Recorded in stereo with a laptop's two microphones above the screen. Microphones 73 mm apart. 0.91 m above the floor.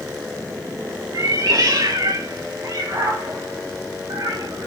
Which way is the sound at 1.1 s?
55° right (ahead or behind).